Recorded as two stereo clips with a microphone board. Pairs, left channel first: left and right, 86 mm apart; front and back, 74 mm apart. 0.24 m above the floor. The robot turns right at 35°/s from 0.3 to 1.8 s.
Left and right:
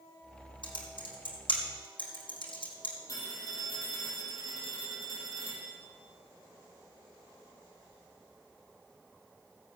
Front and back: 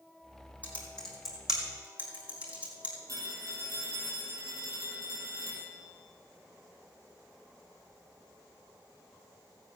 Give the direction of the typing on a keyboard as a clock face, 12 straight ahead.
10 o'clock.